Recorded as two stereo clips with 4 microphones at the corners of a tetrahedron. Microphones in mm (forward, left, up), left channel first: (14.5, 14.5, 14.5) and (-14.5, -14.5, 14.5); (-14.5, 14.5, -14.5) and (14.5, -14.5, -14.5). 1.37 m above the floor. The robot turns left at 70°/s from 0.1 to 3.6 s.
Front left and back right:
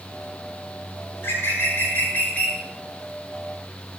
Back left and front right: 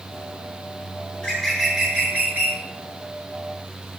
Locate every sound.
1.1 s a bird: 90° left, 8.5 m; by 2.6 s 20° right, 8.5 m